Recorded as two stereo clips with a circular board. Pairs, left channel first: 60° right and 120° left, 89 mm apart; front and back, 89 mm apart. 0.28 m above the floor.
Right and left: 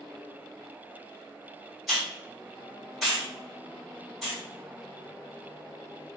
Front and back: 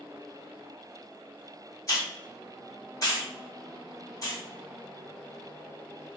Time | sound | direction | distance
1.9 | a hiss | 30° left | 1.4 m